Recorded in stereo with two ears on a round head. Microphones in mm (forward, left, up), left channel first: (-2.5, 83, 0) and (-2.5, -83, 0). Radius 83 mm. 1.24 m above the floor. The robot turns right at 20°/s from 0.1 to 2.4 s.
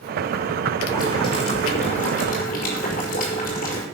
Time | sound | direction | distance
0.9 | boiling | 20° left (ahead or behind) | 5.5 m